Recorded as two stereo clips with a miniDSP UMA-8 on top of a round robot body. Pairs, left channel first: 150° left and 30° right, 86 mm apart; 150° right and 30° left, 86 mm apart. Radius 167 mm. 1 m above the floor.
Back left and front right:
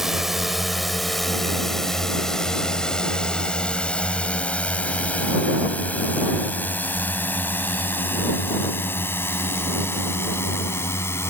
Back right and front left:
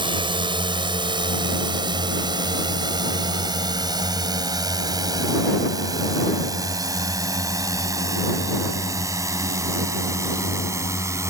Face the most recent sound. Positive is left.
turn(degrees=85)